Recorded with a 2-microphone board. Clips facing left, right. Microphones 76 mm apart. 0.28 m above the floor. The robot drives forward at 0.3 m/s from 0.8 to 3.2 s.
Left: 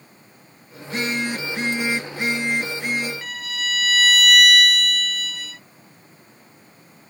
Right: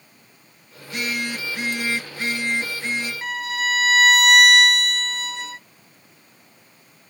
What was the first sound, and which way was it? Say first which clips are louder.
A phone buzzing: left 3 dB; 35° left (ahead or behind).